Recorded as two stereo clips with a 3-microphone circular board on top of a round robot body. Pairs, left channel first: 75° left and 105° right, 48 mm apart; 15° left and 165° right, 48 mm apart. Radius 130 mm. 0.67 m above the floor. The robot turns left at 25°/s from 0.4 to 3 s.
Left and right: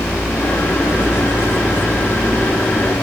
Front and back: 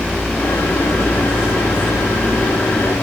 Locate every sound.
Only background noise.